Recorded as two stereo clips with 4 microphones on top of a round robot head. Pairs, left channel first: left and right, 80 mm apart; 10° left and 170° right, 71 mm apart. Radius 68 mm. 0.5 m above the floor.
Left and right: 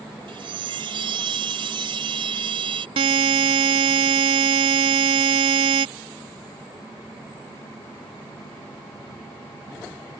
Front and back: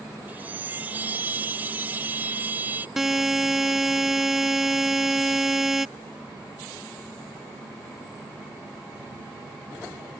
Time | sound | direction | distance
0.3 | a chime | 100° right | ?
3.0 | a buzzer | 85° right | ?